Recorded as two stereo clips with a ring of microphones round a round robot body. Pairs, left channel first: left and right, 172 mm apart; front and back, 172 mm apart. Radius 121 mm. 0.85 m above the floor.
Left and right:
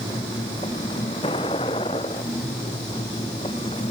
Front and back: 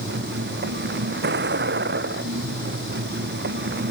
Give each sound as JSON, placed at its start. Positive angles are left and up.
{"t": 0.0, "sound": "a vehicle", "azimuth_deg": 165}